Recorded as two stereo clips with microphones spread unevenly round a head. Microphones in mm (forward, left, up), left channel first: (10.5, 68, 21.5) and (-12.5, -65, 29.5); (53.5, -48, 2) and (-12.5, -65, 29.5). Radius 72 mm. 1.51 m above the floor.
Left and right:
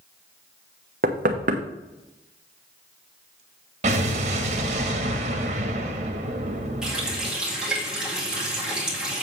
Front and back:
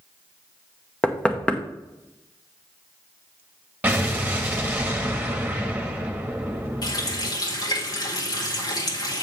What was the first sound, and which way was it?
Knocking, 65° right.